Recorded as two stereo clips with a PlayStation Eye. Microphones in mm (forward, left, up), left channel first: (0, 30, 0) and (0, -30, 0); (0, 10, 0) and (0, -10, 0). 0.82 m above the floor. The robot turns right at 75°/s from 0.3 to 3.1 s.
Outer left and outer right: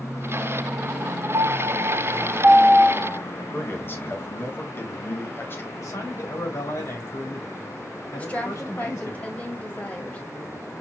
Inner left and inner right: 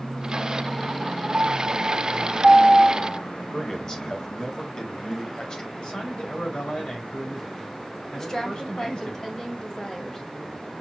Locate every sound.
1.3 s a piano: 115° right, 0.7 m; by 3.2 s 20° left, 0.7 m
3.4 s a man speaking: 40° left (ahead or behind), 1.1 m
5.8 s a man speaking: 60° left (ahead or behind), 3 m
8.2 s a woman speaking: 20° left (ahead or behind), 1.4 m